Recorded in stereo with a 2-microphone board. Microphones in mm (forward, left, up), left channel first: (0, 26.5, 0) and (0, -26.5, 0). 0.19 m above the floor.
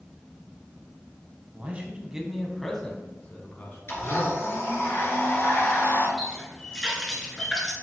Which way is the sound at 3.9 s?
50° left (ahead or behind).